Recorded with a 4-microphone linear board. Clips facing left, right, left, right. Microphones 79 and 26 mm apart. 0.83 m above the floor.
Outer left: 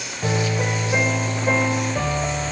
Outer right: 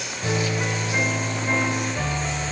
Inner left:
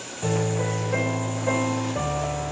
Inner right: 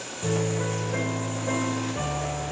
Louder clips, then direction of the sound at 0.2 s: Outer left 2 dB, inner left 2 dB; 55° left (ahead or behind).